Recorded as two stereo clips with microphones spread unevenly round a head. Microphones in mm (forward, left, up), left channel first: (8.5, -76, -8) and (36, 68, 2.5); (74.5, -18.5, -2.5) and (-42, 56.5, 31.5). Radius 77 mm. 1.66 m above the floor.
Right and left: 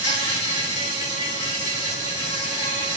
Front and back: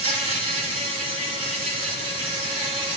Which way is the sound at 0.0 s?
160° right.